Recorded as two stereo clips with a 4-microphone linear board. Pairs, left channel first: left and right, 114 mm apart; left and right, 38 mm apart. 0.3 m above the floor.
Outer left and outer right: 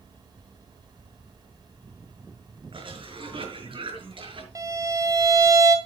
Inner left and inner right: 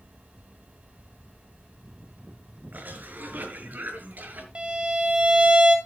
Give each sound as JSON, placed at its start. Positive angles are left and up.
{"t": 2.7, "sound": "a cough", "side_deg": -55, "distance_m": 5.5}
{"t": 4.5, "sound": "a violin", "side_deg": -30, "distance_m": 2.0}